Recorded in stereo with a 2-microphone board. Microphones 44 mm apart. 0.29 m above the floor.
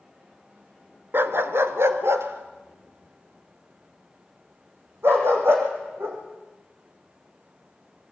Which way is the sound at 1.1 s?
60° right (ahead or behind).